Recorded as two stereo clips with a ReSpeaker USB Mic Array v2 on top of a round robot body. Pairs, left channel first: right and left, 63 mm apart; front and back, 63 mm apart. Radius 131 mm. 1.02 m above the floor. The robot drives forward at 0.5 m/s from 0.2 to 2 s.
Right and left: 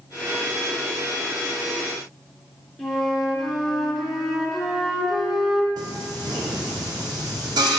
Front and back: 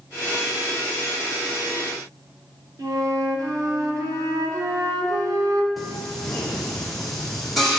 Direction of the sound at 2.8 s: 175° right.